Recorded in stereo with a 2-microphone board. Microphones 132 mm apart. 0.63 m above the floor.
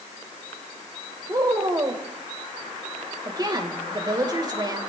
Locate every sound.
1.3 s a woman speaking: 30° right (ahead or behind), 3 m